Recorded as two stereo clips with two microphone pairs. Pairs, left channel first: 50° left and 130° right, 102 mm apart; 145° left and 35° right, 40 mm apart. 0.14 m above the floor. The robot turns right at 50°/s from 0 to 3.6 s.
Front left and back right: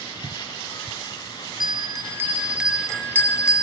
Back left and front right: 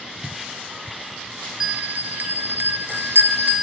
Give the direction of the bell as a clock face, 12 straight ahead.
3 o'clock.